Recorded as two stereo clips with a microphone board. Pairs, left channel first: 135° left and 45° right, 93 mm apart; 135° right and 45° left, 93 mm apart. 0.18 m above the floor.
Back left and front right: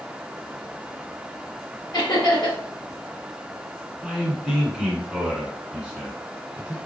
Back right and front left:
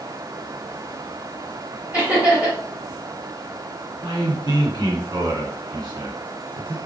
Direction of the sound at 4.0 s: 35° left.